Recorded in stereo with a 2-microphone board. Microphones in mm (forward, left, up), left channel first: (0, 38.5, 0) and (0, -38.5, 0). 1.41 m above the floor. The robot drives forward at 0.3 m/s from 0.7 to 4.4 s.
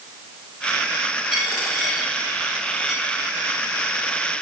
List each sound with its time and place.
1.3 s a dropped coin: 5° right (ahead or behind), 1.6 m